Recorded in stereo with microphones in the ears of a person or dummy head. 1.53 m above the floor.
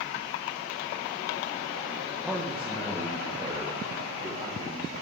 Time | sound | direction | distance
2.2 | a man speaking | 5° left (ahead or behind) | 1.3 m